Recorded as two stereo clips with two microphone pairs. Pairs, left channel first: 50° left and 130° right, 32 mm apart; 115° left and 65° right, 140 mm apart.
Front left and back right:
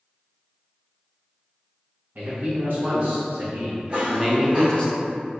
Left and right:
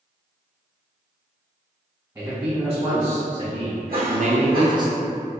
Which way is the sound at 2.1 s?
140° right.